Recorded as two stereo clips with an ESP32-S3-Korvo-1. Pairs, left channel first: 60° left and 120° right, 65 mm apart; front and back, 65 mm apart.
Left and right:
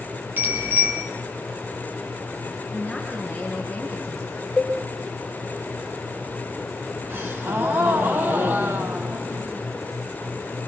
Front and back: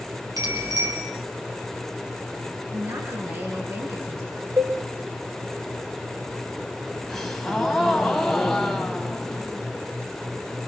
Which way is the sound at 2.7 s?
155° left.